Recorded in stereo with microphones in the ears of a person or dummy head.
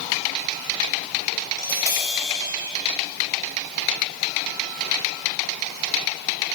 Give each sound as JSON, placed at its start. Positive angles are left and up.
{"t": 1.6, "sound": "tapping", "side_deg": 15, "distance_m": 3.0}